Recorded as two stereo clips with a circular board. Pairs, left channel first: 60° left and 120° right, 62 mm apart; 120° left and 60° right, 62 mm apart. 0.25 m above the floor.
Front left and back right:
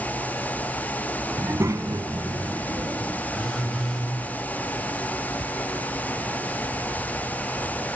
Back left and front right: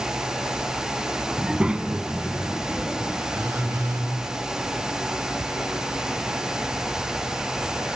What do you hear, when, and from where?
1.4 s a child speaking: 130° right, 0.8 m
3.3 s a phone buzzing: 25° right, 9 m